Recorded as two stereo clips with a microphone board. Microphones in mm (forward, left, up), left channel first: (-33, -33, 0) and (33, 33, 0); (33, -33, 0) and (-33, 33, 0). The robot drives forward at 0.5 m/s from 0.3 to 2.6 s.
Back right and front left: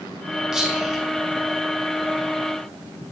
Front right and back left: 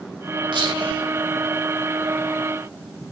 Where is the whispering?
130° left, 2.5 m; by 1.0 s 135° left, 2.5 m.